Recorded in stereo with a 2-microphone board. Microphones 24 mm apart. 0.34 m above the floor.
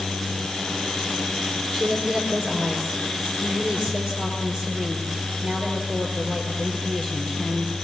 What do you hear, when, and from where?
1.7 s a woman speaking: 25° right (ahead or behind), 5.5 m